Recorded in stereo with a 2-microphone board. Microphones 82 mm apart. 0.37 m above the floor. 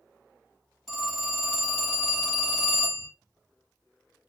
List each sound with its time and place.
0.9 s a phone ringing: 10° left (ahead or behind), 1.3 m